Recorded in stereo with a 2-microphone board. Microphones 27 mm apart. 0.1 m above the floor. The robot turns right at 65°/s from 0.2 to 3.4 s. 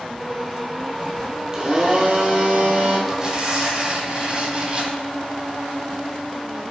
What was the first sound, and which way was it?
A blender, 155° right.